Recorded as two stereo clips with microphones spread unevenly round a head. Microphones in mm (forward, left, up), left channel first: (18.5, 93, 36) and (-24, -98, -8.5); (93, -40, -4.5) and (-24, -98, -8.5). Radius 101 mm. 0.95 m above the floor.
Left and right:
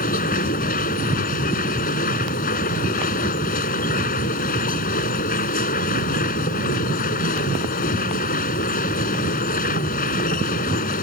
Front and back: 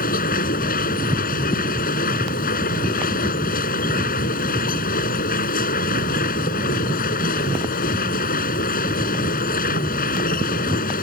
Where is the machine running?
30° left.